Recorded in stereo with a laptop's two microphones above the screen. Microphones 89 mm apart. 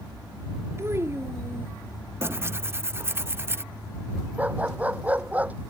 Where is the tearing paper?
30° right (ahead or behind).